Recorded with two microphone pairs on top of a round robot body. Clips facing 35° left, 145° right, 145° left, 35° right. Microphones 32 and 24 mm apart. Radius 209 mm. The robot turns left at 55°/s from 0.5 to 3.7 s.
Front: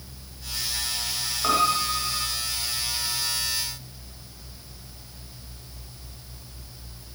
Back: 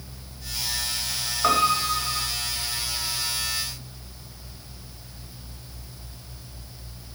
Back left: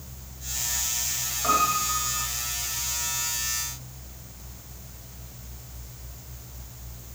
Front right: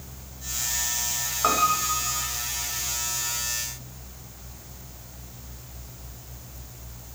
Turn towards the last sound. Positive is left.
turn(degrees=155)